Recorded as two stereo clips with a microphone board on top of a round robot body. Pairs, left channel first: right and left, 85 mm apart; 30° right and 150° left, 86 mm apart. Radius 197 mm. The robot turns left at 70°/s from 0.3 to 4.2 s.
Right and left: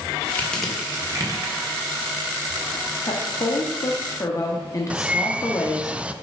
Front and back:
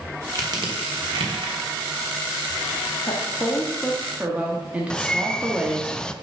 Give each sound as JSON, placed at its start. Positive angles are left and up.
{"t": 0.3, "sound": "crushing", "azimuth_deg": -160, "distance_m": 2.0}
{"t": 3.0, "sound": "a woman speaking", "azimuth_deg": -55, "distance_m": 1.4}
{"t": 4.9, "sound": "a bird", "azimuth_deg": 35, "distance_m": 0.9}